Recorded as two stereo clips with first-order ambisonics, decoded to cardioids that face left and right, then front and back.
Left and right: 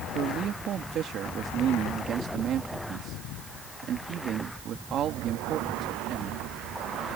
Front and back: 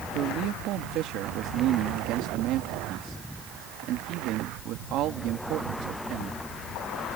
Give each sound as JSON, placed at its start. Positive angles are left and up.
{"t": 0.1, "sound": "a man speaking", "azimuth_deg": -140}